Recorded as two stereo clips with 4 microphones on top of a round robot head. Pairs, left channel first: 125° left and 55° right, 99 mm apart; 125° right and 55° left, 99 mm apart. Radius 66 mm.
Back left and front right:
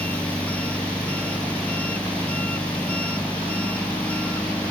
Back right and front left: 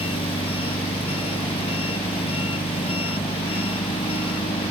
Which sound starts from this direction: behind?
An engine running, at 0.0 s.